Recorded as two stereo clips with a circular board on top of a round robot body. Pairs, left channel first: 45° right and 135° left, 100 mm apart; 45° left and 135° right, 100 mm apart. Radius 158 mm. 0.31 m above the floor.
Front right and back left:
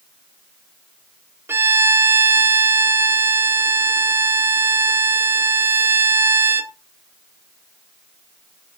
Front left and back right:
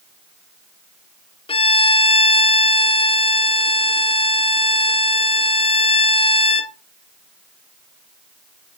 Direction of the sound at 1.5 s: 70° left.